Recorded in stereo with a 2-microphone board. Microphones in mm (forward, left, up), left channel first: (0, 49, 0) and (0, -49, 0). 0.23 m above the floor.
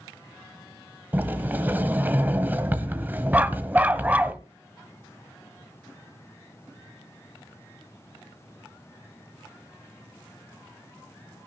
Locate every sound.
1.1 s a sliding door: 20° right (ahead or behind), 1.2 m
3.3 s a dog barking: 15° right (ahead or behind), 0.5 m